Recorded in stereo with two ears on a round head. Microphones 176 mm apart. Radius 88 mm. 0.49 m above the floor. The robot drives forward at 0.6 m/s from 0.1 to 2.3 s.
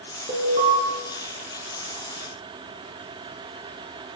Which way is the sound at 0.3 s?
35° right (ahead or behind).